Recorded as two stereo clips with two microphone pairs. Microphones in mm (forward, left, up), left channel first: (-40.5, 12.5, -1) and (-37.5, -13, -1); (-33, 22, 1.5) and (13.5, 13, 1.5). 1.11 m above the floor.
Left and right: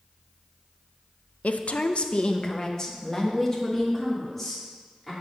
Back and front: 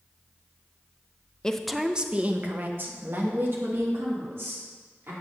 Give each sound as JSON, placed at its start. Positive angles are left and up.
{"t": 1.4, "sound": "a woman speaking", "azimuth_deg": 95, "distance_m": 0.5}